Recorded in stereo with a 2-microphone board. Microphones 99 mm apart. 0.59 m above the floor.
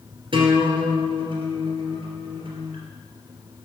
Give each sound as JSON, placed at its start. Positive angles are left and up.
{"t": 0.3, "sound": "a guitar", "side_deg": -55, "distance_m": 2.5}